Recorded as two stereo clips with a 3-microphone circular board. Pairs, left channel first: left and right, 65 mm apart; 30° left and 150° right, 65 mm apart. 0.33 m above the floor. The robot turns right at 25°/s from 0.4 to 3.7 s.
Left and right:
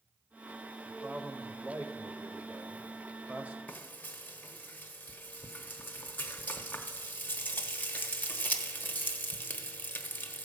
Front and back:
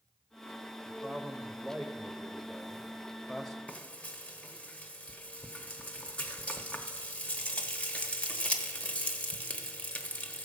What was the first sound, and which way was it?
A man speaking, 120° right.